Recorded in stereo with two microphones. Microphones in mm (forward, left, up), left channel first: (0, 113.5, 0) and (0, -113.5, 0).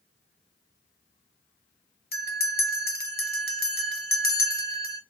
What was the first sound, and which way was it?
A bell, 45° left (ahead or behind).